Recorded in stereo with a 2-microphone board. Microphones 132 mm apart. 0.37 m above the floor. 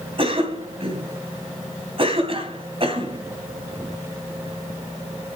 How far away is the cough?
About 3 m.